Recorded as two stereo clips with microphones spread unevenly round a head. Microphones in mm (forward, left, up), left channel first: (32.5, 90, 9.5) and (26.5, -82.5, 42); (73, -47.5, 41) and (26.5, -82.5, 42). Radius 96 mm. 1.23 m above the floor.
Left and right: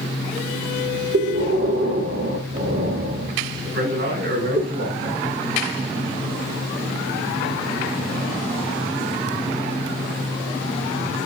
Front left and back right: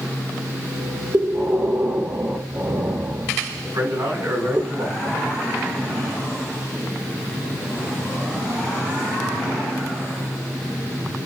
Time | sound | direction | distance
1.1 | breathing | 95° right | 1.5 m
3.6 | a man speaking | 125° right | 4.5 m